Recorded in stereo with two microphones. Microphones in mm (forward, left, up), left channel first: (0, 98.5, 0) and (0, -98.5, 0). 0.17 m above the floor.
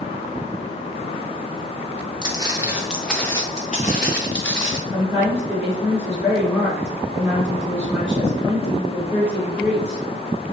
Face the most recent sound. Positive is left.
turn(degrees=-5)  # may be behind; listen again after turning